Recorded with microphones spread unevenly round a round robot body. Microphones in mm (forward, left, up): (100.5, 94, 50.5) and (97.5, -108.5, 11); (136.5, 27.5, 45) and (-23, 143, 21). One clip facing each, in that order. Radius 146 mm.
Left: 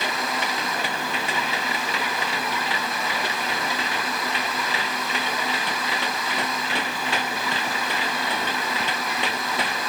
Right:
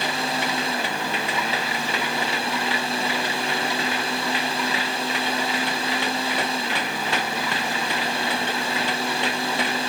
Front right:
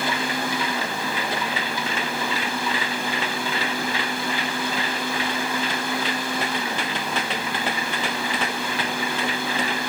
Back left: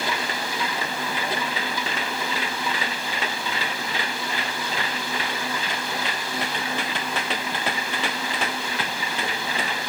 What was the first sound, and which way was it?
Only background noise.